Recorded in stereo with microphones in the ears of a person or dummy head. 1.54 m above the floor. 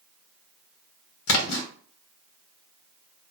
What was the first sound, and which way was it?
A splash, 65° left (ahead or behind).